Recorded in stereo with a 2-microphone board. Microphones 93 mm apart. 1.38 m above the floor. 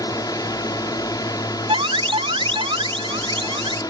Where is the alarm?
75° right (ahead or behind).